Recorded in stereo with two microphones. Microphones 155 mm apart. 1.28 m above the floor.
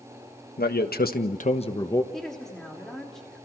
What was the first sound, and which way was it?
A man speaking, 80° left.